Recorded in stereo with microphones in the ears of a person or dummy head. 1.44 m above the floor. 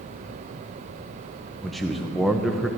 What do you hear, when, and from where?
1.6 s a man speaking: centre (ahead or behind), 0.6 m